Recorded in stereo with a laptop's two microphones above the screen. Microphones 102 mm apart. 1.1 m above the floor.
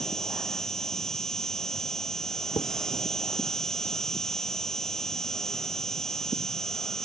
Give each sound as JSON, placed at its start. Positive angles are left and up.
{"t": 0.0, "sound": "an insect", "side_deg": 5}
{"t": 2.6, "sound": "dishes clattering", "side_deg": 55}